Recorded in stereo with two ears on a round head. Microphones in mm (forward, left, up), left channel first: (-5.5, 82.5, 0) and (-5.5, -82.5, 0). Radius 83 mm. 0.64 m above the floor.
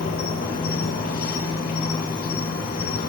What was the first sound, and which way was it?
An insect, 45° left (ahead or behind).